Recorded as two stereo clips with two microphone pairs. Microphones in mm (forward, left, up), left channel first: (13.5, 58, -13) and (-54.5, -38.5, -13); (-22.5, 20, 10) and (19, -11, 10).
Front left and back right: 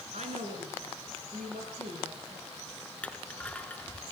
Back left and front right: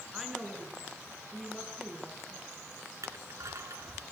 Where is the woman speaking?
115° right, 5.5 m; by 2.5 s 130° right, 8 m.